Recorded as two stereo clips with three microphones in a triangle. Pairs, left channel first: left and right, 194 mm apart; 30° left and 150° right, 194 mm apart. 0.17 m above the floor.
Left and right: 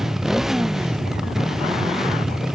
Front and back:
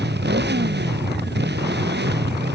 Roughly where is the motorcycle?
Behind.